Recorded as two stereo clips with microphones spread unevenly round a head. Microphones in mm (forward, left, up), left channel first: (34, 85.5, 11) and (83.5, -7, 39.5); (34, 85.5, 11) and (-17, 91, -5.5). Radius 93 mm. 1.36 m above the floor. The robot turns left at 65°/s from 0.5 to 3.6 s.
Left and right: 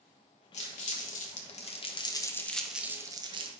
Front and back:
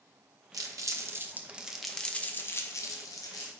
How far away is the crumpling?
About 1.2 m.